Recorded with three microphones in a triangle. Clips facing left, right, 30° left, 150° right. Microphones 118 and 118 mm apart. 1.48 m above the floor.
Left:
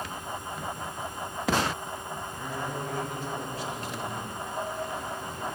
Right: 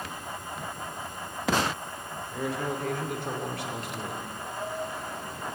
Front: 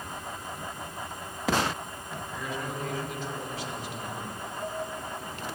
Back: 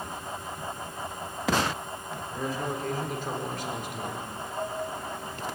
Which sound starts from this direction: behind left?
Dishes clattering, at 4.5 s.